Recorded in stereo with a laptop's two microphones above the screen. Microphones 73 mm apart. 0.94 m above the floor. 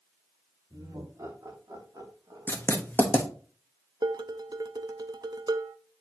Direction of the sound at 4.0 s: 65° right (ahead or behind).